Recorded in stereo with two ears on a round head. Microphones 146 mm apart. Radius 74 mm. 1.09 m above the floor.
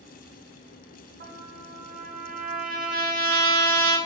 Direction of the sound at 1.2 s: 60° right (ahead or behind).